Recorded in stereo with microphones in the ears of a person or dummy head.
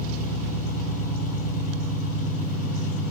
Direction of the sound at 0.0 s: 50° left (ahead or behind).